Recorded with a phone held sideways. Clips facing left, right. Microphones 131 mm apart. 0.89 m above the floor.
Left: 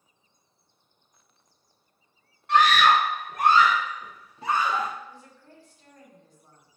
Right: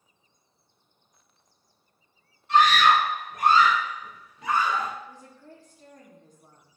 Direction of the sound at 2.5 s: 80° left.